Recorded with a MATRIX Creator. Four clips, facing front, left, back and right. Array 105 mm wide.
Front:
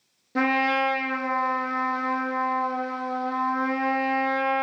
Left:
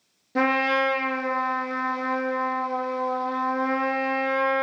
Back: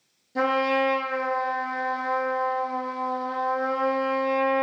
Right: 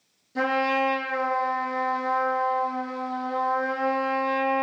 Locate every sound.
0.3 s a trumpet: 45° left, 0.8 m